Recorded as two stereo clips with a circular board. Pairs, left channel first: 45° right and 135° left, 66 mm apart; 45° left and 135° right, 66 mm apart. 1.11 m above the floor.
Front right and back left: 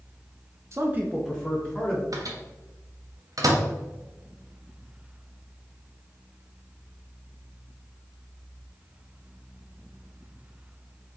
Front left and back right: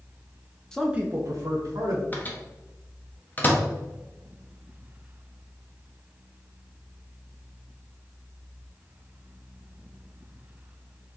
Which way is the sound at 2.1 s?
105° left.